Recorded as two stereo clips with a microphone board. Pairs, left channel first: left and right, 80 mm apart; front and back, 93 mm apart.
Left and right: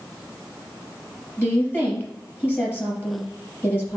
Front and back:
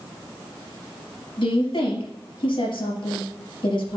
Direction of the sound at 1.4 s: 25° left.